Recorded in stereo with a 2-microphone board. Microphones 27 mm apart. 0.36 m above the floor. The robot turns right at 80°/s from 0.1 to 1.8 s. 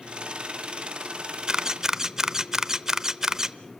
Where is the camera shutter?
25° right (ahead or behind), 0.7 m; by 3.6 s 20° right (ahead or behind), 0.7 m.